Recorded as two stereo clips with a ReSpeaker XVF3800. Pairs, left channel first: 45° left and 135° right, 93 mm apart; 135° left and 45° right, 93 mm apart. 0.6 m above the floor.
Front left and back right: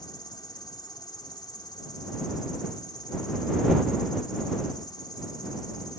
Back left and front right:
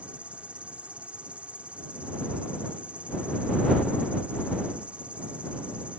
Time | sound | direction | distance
0.0 | an insect | 25° left | ?